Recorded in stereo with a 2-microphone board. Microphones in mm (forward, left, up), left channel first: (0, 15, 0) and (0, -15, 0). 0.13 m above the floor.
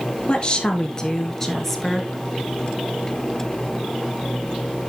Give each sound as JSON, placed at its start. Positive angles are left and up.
{"t": 0.3, "sound": "a woman speaking", "side_deg": 35, "distance_m": 2.0}